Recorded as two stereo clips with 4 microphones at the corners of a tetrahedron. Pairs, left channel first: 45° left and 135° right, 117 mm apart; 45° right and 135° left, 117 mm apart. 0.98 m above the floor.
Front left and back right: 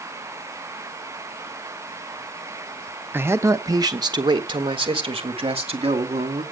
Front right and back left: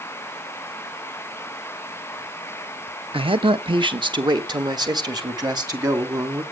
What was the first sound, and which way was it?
A man speaking, 155° left.